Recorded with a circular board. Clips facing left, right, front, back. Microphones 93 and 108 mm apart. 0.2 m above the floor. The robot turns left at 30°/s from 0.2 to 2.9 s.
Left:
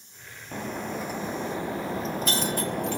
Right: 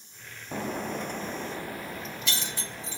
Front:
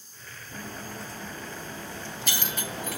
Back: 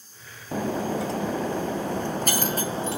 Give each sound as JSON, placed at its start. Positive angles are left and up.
{"t": 0.5, "sound": "breaking glass", "azimuth_deg": -170, "distance_m": 0.7}